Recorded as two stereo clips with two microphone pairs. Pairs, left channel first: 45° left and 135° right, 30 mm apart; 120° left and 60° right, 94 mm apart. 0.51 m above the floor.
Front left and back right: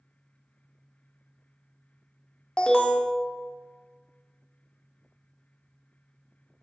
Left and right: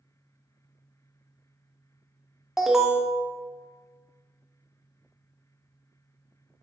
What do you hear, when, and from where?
2.6 s an alarm: 20° left, 0.7 m